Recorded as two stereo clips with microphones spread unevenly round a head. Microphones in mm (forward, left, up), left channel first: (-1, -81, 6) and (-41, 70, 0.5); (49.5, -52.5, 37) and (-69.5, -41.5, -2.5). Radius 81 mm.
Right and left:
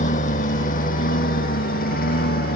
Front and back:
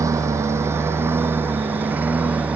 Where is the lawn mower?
115° right; by 2.6 s 105° right.